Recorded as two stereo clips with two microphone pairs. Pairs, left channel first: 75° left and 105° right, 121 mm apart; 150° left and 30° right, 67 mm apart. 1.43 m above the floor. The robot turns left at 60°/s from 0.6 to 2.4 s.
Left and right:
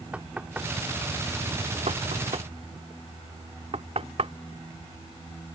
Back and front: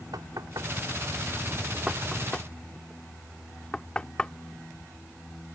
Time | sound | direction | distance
0.1 | knocking | 30° right | ?